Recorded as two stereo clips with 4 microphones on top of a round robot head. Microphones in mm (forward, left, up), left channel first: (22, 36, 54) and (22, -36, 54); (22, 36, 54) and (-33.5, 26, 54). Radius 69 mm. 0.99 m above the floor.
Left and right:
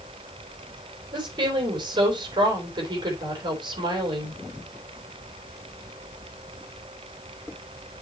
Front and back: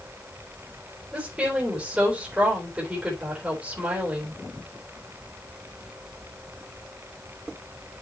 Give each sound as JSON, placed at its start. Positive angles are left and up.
{"t": 1.1, "sound": "a woman speaking", "azimuth_deg": -95, "distance_m": 4.0}